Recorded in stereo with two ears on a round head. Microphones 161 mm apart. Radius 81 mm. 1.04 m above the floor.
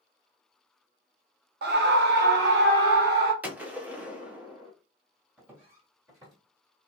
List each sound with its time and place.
1.6 s a scream: 60° right (ahead or behind), 0.6 m; by 3.3 s 55° right (ahead or behind), 1.6 m
3.4 s a gunshot: 10° right (ahead or behind), 0.7 m
5.4 s footsteps: 5° right (ahead or behind), 1.9 m; by 6.4 s 25° right (ahead or behind), 1.7 m